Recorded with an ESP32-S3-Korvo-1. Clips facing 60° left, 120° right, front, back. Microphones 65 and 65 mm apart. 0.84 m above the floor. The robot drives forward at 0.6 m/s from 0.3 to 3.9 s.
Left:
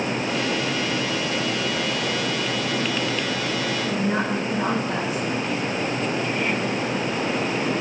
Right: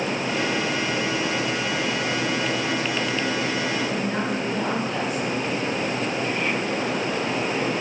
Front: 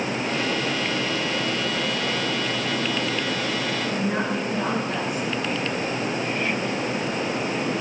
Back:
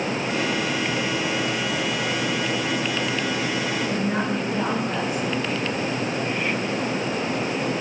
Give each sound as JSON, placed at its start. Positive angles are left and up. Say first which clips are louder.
{"t": 3.8, "sound": "a woman speaking", "louder": "left 2 dB, back 1 dB", "azimuth_deg": 125, "distance_m": 5.0}